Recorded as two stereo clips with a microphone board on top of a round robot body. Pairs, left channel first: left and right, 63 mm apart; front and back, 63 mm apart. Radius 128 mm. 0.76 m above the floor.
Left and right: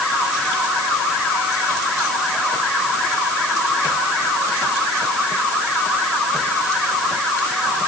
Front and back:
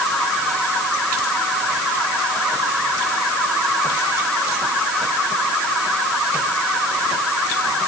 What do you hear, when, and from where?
Only background noise.